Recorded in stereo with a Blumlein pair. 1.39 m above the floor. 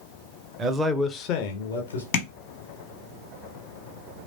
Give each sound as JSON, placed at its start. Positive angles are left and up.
{"t": 0.6, "sound": "a man speaking", "azimuth_deg": -25, "distance_m": 0.6}
{"t": 2.1, "sound": "tapping", "azimuth_deg": 45, "distance_m": 1.0}